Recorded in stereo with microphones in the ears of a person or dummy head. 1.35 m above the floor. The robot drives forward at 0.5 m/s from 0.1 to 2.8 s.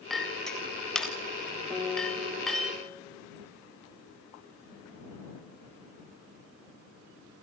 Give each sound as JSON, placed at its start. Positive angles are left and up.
{"t": 0.1, "sound": "a clink", "side_deg": 0, "distance_m": 1.3}
{"t": 1.7, "sound": "a guitar", "side_deg": 5, "distance_m": 4.5}